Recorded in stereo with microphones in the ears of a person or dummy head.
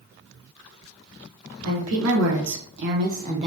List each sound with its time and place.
1.6 s a woman speaking: 85° right, 1.6 m; by 3.5 s 35° right (ahead or behind), 1.0 m